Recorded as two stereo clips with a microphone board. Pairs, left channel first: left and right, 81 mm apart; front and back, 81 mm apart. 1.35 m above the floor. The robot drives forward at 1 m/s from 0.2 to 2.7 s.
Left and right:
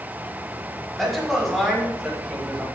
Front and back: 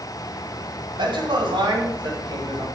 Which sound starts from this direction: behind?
A man speaking, at 1.0 s.